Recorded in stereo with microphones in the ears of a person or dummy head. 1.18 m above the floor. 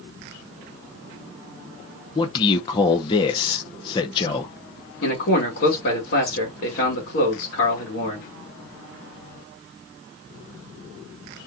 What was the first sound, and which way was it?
A man speaking, 30° left (ahead or behind).